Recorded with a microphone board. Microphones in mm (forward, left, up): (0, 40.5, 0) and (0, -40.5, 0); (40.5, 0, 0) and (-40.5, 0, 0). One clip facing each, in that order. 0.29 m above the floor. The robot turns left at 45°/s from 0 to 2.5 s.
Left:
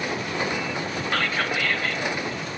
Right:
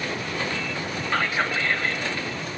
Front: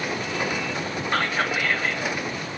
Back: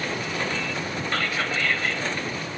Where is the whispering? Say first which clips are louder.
Right 2 dB, front 4 dB; 35° right, 1.2 m; by 2.0 s 75° right, 1.2 m.